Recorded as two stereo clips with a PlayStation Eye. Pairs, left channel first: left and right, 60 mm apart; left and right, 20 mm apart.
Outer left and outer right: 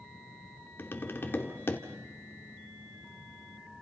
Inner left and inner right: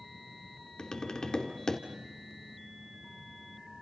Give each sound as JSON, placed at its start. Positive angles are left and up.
{"t": 0.8, "sound": "tapping", "side_deg": 40, "distance_m": 2.0}